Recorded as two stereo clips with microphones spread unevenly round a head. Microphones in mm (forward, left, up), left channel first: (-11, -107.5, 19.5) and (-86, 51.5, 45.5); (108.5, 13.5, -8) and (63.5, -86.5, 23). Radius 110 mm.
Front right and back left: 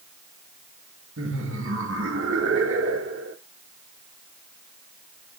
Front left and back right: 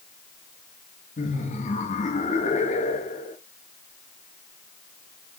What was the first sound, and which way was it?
Laughter, 85° left.